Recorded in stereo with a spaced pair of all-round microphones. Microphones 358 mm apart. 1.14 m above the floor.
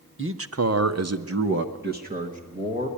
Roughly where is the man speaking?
Right.